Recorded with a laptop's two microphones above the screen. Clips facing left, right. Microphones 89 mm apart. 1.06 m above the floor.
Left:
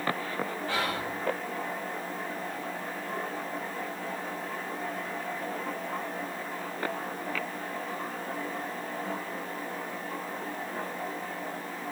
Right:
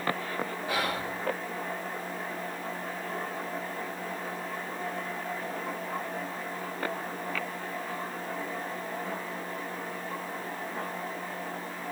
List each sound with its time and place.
0.7 s whispering: 15° right (ahead or behind), 3 m